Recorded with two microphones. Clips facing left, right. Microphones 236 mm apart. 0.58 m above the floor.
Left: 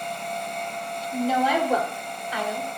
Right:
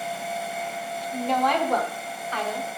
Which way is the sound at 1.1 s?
5° left (ahead or behind).